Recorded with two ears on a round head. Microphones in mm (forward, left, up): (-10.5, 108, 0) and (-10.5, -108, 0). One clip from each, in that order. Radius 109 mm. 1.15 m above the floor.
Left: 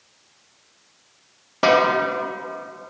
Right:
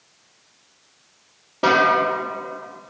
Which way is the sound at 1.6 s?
50° left (ahead or behind).